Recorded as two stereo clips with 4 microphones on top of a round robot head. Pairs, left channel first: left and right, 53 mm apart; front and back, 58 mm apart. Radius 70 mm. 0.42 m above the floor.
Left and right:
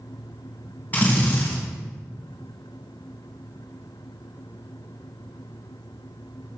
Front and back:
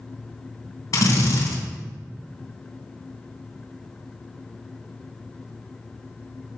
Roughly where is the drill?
Ahead left.